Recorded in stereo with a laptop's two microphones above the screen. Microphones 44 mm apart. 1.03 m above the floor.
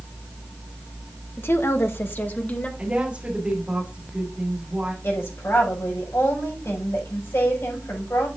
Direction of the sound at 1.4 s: 60° left (ahead or behind).